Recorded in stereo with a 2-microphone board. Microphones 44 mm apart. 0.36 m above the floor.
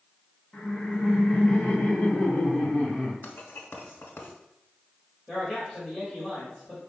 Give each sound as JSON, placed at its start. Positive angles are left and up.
{"t": 0.5, "sound": "laughter", "side_deg": 20, "distance_m": 1.7}
{"t": 3.2, "sound": "writing", "side_deg": 65, "distance_m": 1.0}
{"t": 5.3, "sound": "a man speaking", "side_deg": 0, "distance_m": 1.7}